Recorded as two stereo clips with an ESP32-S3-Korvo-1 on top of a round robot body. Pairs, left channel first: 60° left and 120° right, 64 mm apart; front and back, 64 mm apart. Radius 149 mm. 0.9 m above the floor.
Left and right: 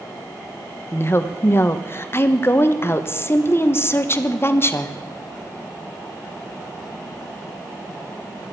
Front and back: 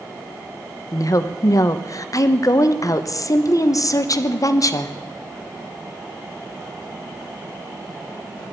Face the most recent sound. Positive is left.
turn(degrees=15)